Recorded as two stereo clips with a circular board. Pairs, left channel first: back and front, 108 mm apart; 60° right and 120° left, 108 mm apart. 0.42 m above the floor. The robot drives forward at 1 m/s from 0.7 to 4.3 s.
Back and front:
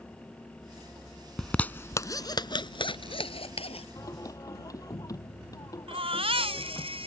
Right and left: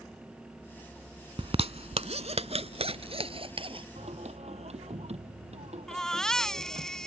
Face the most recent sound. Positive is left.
turn(degrees=25)